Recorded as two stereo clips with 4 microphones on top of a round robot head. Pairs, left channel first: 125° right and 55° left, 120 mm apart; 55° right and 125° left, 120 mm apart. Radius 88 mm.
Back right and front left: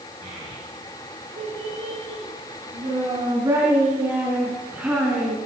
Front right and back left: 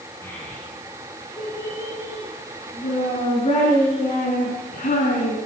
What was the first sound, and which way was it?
A child speaking, 15° left.